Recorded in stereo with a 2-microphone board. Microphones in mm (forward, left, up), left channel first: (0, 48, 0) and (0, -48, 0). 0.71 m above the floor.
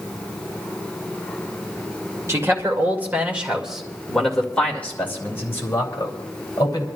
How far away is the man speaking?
About 2.5 m.